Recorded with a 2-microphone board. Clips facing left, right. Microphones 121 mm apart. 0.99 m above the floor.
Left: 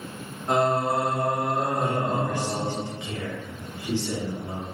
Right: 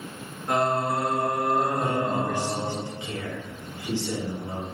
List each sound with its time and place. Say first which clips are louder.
0.5 s singing: left 2 dB; 25° left (ahead or behind), 0.8 m
1.8 s a man speaking: even; 15° right (ahead or behind), 2 m